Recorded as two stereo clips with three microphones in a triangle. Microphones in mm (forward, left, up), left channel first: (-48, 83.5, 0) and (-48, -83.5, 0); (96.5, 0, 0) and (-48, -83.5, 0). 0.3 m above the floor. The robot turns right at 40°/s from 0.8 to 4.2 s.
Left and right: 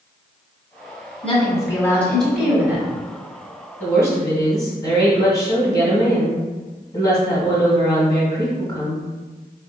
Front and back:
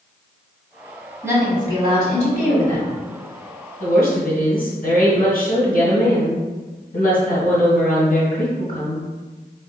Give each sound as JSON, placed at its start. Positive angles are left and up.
{"t": 1.2, "sound": "a woman speaking", "azimuth_deg": 135, "distance_m": 1.5}
{"t": 3.8, "sound": "a woman speaking", "azimuth_deg": 10, "distance_m": 1.9}